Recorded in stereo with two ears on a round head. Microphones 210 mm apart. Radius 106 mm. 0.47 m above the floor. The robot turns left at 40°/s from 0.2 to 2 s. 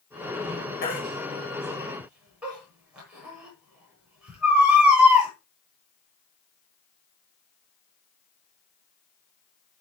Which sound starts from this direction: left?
A baby crying, at 0.8 s.